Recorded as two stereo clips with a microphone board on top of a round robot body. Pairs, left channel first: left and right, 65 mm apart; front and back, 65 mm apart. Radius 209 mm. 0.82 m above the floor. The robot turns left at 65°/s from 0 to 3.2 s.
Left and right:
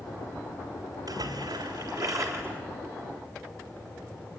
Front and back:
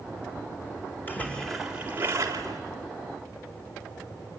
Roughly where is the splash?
Ahead right.